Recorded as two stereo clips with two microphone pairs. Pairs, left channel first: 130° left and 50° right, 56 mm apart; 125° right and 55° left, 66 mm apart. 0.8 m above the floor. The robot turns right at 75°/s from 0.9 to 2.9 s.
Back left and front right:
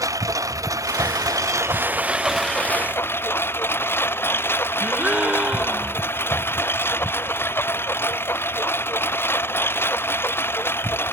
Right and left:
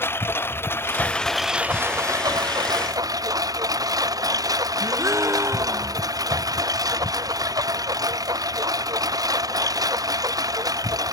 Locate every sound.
0.0 s a lawn mower: 70° right; by 11.1 s 80° left
4.8 s a gasp: 20° left